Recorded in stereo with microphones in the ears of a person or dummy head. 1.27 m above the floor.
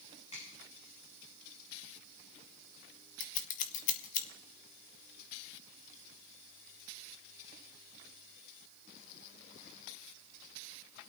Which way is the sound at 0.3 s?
40° left (ahead or behind).